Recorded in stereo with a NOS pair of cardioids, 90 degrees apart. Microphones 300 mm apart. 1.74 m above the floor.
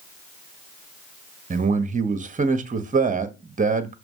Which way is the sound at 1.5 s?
25° right.